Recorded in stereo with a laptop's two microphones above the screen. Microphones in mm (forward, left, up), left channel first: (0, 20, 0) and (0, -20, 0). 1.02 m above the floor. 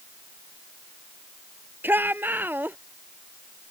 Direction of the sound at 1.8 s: 55° right (ahead or behind).